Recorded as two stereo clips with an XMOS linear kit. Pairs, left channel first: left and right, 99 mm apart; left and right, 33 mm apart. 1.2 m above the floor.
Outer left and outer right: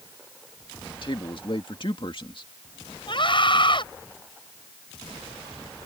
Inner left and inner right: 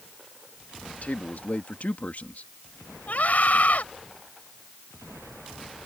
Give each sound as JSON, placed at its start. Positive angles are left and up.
{"t": 1.0, "sound": "a man speaking", "side_deg": 55}
{"t": 3.1, "sound": "a scream", "side_deg": 55}